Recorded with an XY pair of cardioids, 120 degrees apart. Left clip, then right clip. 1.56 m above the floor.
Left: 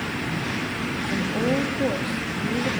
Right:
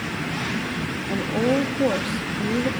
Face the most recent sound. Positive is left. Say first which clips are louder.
# right 3 dB
turn(degrees=-25)